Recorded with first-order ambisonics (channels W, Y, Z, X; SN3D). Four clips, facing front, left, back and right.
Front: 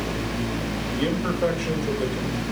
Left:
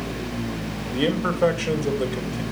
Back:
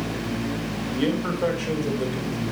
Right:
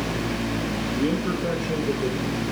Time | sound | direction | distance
0.9 | a man speaking | 95° left | 3 m